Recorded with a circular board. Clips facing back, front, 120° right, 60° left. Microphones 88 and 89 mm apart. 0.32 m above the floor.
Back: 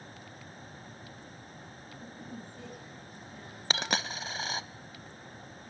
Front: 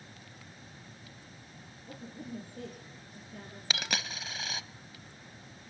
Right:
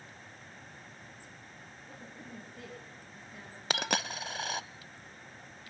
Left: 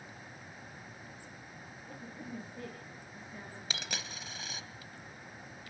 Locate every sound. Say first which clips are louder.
1.9 s a woman speaking: front 4 dB, left 4 dB; 25° right, 5.5 m
3.7 s a dropped coin: back 4 dB, right 11 dB; 125° right, 0.5 m